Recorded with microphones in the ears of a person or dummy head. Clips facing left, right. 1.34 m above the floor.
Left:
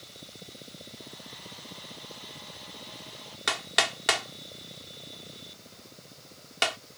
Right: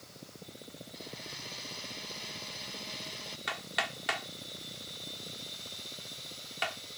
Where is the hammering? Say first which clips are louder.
Left 7 dB; 55° left (ahead or behind).